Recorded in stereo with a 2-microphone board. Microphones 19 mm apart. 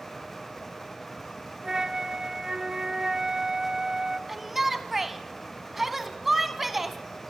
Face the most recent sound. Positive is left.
turn(degrees=-15)  # may be behind; listen again after turning